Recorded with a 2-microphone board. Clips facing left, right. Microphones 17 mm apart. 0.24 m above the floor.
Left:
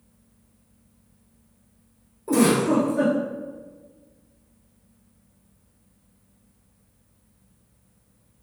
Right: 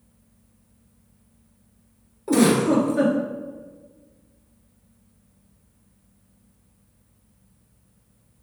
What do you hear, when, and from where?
2.3 s a giggle: 35° right (ahead or behind), 0.9 m